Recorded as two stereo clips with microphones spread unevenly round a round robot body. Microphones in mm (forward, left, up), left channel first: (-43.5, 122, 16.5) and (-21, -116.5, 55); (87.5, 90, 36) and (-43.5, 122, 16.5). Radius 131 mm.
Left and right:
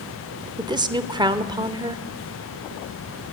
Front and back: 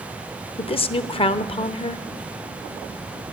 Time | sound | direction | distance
0.6 | a woman speaking | 10° right | 1.0 m